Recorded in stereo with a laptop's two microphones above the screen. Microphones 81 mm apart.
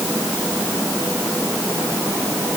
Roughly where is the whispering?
No whispering in this recording.